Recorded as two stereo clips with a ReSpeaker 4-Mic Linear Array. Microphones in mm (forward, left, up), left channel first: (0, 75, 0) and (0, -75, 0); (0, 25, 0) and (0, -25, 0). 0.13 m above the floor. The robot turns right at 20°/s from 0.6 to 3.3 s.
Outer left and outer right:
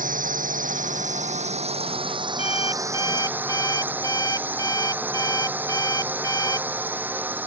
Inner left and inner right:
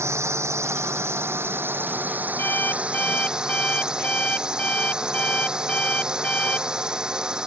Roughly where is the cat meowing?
I don't hear a cat meowing.